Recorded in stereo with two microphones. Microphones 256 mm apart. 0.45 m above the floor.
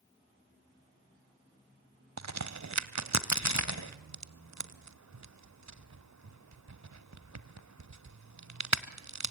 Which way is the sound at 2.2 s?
80° right.